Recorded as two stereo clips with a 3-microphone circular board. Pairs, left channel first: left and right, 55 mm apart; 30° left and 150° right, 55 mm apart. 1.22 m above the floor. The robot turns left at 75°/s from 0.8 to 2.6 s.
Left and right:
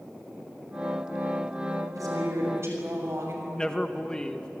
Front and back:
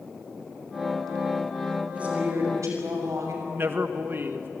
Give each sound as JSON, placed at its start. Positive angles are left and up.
{"t": 1.9, "sound": "a woman speaking", "azimuth_deg": -80, "distance_m": 6.5}
{"t": 3.5, "sound": "a man speaking", "azimuth_deg": 165, "distance_m": 1.6}